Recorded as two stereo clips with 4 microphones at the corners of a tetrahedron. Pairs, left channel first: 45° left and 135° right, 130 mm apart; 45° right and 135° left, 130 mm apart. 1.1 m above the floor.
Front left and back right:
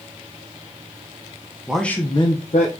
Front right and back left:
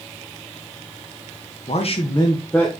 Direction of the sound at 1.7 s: 50° right.